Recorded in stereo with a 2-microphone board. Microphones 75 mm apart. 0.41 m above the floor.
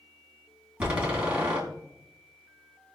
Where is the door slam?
15° right (ahead or behind), 2.5 m.